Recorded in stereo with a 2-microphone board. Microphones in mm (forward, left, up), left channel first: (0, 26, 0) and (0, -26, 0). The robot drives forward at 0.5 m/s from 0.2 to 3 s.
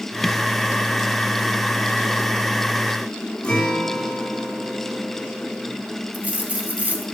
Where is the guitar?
15° left (ahead or behind), 3.5 m.